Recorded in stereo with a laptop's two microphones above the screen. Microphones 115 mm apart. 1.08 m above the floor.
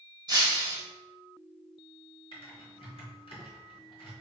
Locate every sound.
0.3 s breaking glass: 40° right (ahead or behind), 1.1 m
2.3 s typing on a keyboard: 55° left (ahead or behind), 1.1 m